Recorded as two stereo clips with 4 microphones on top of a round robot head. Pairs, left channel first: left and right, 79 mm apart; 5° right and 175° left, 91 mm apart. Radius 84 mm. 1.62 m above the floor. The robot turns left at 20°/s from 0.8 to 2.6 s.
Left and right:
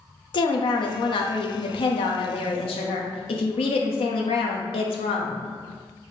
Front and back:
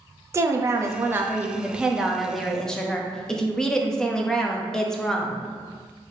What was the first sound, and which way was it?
A woman speaking, 115° left.